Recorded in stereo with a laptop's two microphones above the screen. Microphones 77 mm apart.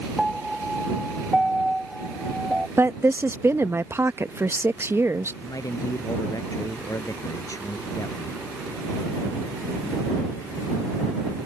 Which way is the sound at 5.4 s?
50° left (ahead or behind).